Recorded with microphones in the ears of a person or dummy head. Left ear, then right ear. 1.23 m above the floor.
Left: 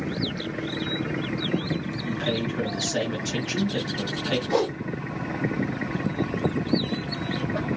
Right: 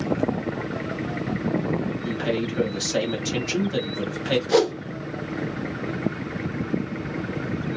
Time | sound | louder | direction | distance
2.0 | a man speaking | even | 15° right (ahead or behind) | 0.8 m
4.5 | a whoosh | right 5 dB | 45° right (ahead or behind) | 0.7 m